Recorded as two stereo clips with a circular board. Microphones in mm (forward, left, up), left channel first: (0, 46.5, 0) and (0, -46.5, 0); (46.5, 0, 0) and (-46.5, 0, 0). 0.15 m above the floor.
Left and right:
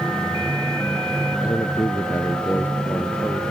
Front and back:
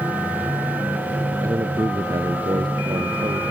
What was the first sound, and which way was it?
A man speaking, 130° left.